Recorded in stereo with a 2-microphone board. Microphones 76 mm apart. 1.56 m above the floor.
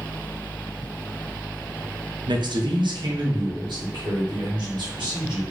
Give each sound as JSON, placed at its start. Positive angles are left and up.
{"t": 2.3, "sound": "a man speaking", "side_deg": -70, "distance_m": 0.6}